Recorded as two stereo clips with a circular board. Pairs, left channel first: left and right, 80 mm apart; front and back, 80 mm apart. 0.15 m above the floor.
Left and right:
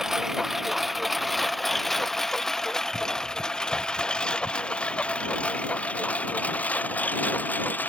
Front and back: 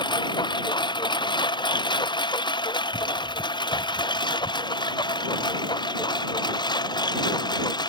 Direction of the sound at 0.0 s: 5° right.